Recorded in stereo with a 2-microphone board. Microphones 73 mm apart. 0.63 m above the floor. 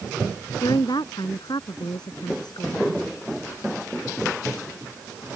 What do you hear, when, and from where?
0.6 s a woman speaking: 80° left; by 2.9 s 75° left (ahead or behind)